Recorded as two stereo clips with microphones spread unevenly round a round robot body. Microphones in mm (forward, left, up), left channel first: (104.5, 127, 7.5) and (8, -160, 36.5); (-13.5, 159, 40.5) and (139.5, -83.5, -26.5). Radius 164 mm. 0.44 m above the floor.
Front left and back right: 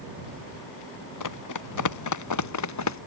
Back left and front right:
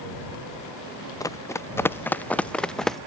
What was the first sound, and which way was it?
Running footsteps, 45° left.